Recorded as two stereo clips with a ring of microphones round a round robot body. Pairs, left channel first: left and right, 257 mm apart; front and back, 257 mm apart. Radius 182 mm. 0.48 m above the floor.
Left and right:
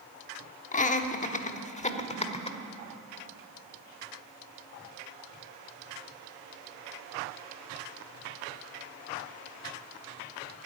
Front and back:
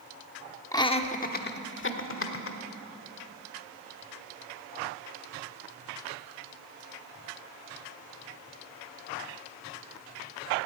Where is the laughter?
65° left, 0.9 m; by 2.6 s 25° left, 1.8 m.